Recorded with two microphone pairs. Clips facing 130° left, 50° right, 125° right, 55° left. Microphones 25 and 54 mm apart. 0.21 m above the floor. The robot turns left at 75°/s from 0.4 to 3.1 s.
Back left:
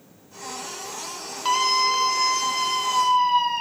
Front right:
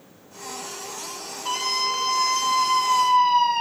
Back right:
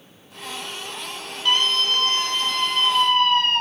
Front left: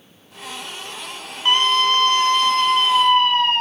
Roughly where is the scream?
Left.